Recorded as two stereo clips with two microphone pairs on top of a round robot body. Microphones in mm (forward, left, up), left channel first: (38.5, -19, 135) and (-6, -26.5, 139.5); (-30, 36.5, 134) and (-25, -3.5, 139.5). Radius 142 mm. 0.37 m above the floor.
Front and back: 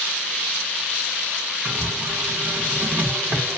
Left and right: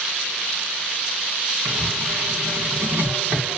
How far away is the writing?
About 4 m.